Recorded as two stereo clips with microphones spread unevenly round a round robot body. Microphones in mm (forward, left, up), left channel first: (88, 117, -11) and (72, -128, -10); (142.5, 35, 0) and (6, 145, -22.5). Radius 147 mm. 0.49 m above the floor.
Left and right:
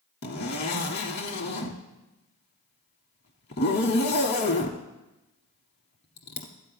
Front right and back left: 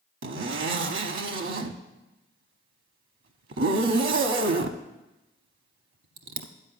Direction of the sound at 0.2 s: 145° left.